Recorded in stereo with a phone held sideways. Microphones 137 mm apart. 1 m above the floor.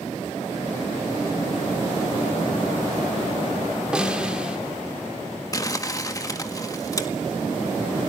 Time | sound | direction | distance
3.9 | a snare drum | 5° right (ahead or behind) | 2.5 m
5.5 | crumpling | 25° left (ahead or behind) | 1.7 m